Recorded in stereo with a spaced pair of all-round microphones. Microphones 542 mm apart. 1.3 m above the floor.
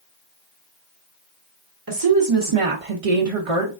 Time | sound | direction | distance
1.9 | a woman speaking | 40° right (ahead or behind) | 0.9 m